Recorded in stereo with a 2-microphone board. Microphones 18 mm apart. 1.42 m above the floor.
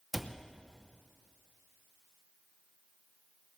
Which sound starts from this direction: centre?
A cupboard door, at 0.1 s.